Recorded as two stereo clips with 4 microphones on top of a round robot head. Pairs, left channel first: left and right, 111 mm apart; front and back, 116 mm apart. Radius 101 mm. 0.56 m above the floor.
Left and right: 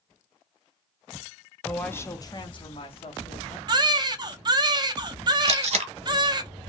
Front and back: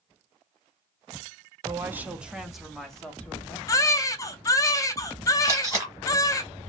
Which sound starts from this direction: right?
Tape being pulled, at 5.5 s.